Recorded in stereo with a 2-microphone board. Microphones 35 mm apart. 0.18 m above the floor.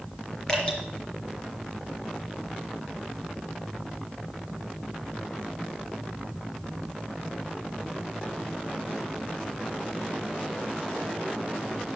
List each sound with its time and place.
0.5 s dripping: 15° left (ahead or behind), 4 m